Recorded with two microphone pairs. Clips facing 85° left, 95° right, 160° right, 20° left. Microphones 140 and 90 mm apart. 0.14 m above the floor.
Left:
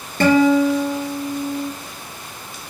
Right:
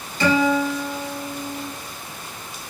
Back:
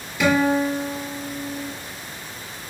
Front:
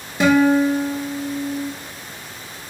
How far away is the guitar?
About 1.0 m.